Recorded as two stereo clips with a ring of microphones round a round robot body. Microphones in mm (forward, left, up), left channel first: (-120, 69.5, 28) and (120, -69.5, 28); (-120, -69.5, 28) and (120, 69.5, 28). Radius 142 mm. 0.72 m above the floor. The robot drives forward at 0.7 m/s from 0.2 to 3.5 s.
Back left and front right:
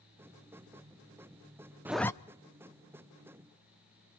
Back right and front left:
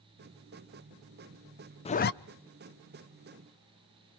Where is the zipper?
105° right, 0.5 m; by 2.1 s 135° right, 0.6 m.